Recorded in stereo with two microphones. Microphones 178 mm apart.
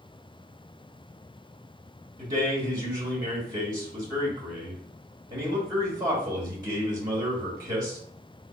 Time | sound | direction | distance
2.2 | a man speaking | 20° right (ahead or behind) | 1.4 m